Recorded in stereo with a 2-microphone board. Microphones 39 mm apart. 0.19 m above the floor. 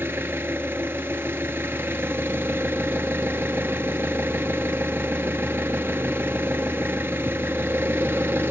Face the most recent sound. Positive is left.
turn(degrees=-75)  # may be behind; listen again after turning